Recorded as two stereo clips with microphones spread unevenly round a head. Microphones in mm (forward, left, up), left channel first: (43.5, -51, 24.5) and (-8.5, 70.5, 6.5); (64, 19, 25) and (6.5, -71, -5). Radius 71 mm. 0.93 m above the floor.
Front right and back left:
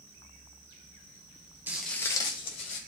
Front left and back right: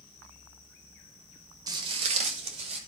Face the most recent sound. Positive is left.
turn(degrees=-100)